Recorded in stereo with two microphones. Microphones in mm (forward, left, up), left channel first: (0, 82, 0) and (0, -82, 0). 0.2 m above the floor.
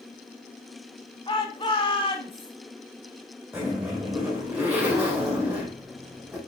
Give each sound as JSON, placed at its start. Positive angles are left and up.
{"t": 1.3, "sound": "a shout", "side_deg": 30, "distance_m": 1.2}
{"t": 3.5, "sound": "a zipper", "side_deg": -10, "distance_m": 5.5}